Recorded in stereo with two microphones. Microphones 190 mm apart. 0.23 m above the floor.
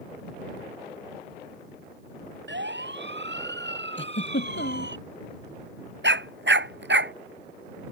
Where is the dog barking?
75° right (ahead or behind).